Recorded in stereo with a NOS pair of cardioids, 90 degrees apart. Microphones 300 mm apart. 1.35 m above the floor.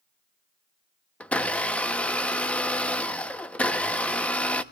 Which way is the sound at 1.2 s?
5° left.